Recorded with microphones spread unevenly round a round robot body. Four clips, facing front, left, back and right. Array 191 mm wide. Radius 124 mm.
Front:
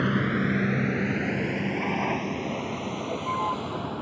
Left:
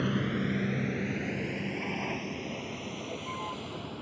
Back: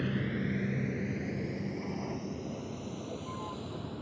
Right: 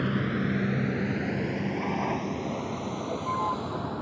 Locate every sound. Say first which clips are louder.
0.0 s a vehicle: right 2 dB, front 8 dB; 5° right; by 4.0 s 25° right